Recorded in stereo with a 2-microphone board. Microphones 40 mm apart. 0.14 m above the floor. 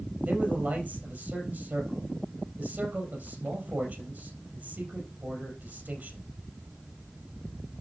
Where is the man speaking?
35° right (ahead or behind), 3.5 m.